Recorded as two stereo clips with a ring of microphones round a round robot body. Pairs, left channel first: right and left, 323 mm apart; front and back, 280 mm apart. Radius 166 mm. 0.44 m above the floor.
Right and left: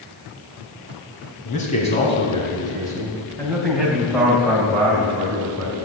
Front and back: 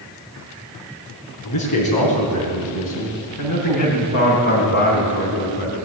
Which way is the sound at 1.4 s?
25° right.